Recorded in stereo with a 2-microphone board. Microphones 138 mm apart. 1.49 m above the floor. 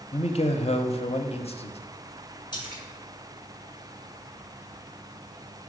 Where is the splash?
30° left (ahead or behind), 1.4 m.